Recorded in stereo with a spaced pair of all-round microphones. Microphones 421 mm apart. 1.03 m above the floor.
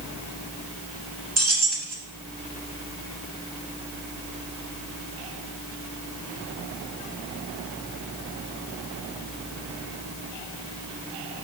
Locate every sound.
1.4 s keys jangling: 35° right (ahead or behind), 1.5 m